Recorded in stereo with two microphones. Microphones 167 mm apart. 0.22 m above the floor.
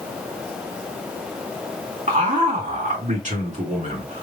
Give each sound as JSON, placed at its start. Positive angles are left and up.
{"t": 2.1, "sound": "a man speaking", "side_deg": -45, "distance_m": 3.0}